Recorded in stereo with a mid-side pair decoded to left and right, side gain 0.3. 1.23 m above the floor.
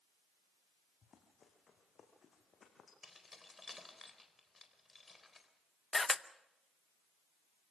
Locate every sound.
1.0 s running footsteps: 65° left, 4 m
3.0 s keys jangling: 30° left, 4 m
5.9 s a camera shutter: 35° left, 0.8 m